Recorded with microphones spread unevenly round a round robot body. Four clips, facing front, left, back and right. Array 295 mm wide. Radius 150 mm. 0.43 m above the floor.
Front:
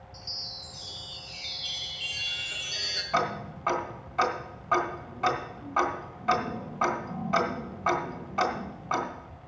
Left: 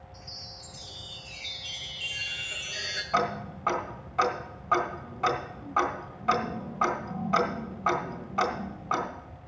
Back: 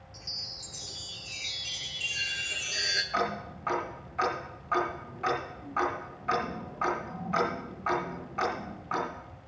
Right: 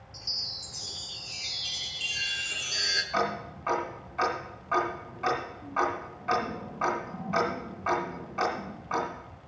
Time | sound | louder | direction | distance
0.1 | a chime | left 1 dB, front 3 dB | 135° right | 1.3 m
3.1 | ticking | left 2 dB, front 4 dB | 25° left | 2.5 m